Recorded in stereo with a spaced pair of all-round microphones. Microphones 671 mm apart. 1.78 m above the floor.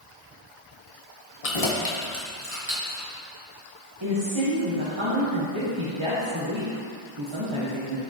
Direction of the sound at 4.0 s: 45° right (ahead or behind).